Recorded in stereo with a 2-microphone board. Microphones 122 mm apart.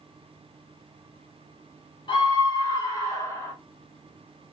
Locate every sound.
2.1 s a scream: 40° left (ahead or behind), 1.3 m; by 3.5 s 20° left (ahead or behind), 1.4 m